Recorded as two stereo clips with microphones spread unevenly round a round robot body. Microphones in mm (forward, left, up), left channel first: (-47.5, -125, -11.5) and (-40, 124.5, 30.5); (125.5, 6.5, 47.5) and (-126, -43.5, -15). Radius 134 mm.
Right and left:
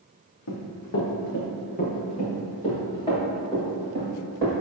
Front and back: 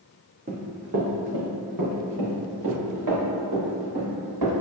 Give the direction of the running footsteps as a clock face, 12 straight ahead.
4 o'clock.